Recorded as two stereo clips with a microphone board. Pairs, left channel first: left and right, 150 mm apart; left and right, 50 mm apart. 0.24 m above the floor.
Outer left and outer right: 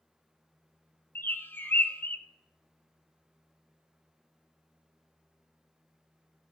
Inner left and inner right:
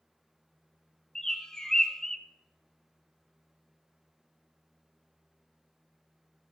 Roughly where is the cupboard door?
I don't hear a cupboard door.